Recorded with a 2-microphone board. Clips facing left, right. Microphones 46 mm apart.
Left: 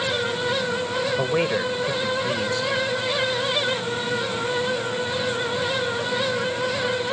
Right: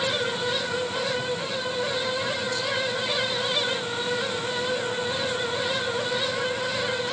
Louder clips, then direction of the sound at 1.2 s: Left 7 dB; 75° left (ahead or behind).